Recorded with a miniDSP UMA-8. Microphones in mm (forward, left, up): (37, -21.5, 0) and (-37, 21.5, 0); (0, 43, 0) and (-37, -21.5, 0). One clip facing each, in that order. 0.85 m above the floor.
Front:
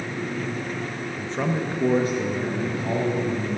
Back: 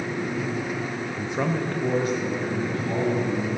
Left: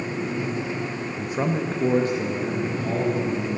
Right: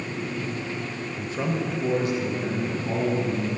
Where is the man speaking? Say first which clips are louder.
Even, left 3 dB; 135° left, 0.7 m; by 3.6 s 10° left, 3 m.